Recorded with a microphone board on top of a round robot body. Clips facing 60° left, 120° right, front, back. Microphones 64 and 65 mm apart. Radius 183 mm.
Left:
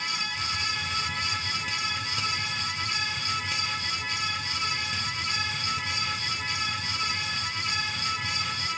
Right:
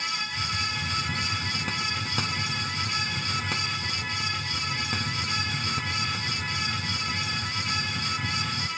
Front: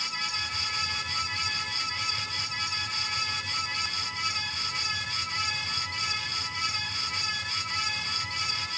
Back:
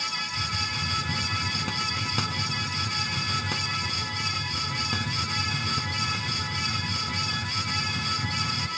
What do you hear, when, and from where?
0.3 s a hiss: 165° right